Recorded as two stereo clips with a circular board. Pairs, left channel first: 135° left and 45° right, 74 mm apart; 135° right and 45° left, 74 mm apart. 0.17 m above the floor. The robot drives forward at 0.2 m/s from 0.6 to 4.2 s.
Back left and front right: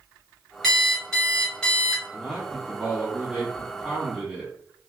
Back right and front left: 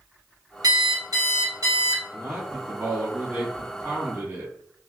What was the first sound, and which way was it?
An alarm clock, 50° left.